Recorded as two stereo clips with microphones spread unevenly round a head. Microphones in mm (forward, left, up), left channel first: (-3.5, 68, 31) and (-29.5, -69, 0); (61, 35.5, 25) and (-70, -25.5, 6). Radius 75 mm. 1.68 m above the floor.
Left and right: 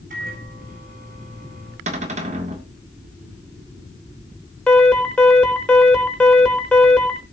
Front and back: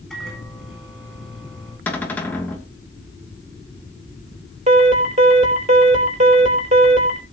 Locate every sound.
0.1 s a microwave: 65° right, 8.5 m
1.9 s a cupboard door: 55° right, 2.5 m
4.7 s an alarm: 160° left, 4.5 m